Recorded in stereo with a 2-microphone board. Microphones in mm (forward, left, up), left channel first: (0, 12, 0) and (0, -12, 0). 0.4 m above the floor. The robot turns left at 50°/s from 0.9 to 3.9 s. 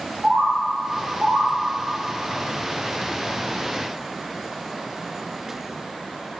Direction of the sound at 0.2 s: 25° right (ahead or behind).